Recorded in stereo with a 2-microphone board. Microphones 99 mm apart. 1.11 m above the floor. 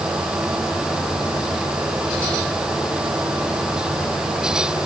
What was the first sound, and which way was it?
Only background noise.